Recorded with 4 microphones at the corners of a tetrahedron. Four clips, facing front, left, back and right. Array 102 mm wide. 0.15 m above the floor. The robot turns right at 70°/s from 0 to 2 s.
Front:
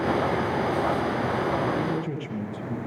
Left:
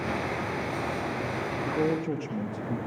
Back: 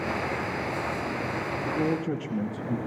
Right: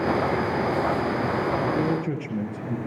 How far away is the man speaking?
About 2.5 m.